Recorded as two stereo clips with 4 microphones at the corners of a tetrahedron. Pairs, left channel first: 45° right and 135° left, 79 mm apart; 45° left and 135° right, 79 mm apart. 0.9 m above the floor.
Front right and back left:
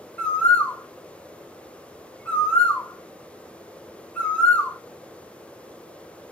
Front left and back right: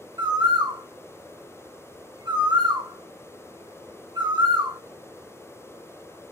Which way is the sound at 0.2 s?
115° right.